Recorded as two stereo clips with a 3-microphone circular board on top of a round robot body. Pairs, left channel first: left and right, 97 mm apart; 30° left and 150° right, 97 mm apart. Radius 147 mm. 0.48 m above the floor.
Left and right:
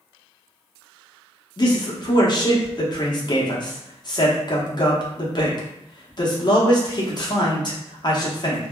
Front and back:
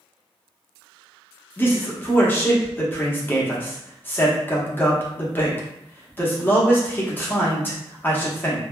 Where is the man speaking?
90° left, 1.1 m.